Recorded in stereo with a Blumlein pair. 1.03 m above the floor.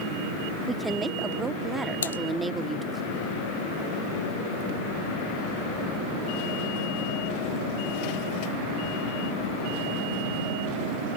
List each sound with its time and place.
0.7 s a woman speaking: 10° right
2.0 s typing on a keyboard: 70° left